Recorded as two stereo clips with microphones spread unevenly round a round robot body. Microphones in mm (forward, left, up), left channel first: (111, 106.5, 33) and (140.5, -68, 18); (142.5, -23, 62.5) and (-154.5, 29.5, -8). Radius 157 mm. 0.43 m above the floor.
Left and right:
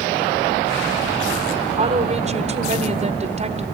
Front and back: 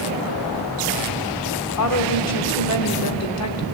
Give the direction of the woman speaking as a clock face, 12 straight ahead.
2 o'clock.